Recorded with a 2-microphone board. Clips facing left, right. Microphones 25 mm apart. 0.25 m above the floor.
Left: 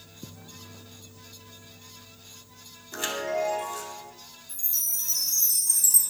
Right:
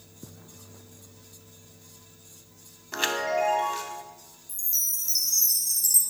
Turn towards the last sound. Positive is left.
turn(degrees=-65)  # may be behind; listen again after turning